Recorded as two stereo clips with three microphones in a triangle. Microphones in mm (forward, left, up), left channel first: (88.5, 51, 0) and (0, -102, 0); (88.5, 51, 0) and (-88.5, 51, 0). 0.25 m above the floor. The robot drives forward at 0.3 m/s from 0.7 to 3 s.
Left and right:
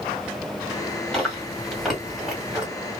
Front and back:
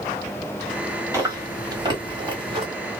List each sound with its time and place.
1.1 s chewing: 140° left, 1.7 m; by 2.7 s 155° left, 1.8 m